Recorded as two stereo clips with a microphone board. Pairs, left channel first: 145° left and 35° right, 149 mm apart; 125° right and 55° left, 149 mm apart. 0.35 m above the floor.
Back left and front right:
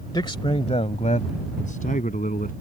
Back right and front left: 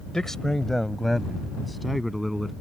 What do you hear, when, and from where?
0.1 s a man speaking: 155° left; by 2.5 s 145° left